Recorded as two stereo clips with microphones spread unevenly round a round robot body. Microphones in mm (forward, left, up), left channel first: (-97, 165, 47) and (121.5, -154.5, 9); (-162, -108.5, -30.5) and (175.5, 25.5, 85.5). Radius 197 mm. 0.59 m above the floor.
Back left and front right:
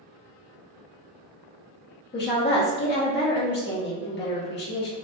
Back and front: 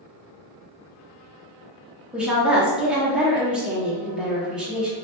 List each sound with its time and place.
2.1 s a woman speaking: 150° left, 0.7 m